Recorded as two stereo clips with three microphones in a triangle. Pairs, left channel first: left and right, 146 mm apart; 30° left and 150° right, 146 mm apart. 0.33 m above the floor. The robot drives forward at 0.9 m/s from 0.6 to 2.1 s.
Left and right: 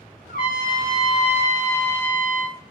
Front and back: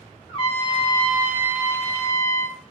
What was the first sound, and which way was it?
A trumpet, 80° left.